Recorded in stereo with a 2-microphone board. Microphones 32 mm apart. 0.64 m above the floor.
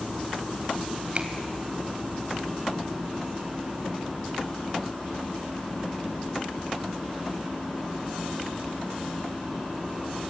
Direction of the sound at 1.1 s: 40° right (ahead or behind).